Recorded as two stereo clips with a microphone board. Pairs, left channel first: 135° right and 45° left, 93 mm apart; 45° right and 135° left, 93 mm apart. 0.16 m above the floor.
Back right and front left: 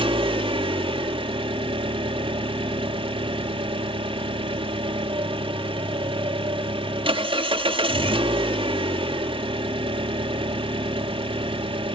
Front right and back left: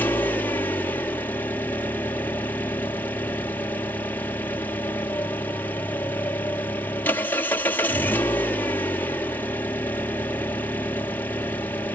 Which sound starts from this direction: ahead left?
An engine running, at 0.0 s.